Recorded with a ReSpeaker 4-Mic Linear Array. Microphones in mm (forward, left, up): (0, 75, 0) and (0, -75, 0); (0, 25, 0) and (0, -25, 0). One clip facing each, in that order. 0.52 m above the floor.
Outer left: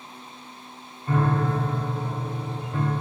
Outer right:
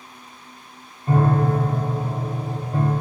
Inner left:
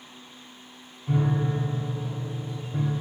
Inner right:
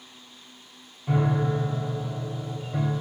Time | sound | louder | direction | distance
1.1 | a piano | outer right 4 dB, inner right 1 dB | 30° right (ahead or behind) | 1.3 m